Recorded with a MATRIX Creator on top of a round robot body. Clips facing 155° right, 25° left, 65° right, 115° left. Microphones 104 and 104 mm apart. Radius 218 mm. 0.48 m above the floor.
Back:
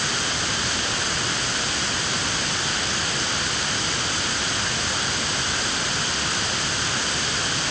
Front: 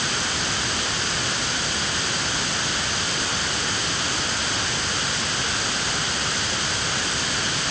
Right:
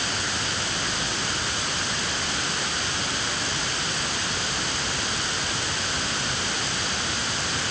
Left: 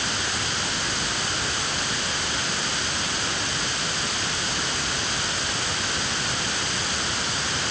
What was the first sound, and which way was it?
Only background noise.